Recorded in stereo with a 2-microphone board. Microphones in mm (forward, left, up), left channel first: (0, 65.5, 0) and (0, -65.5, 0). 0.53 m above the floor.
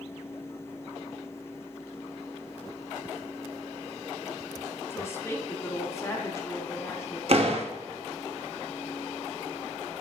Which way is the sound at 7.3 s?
50° right (ahead or behind).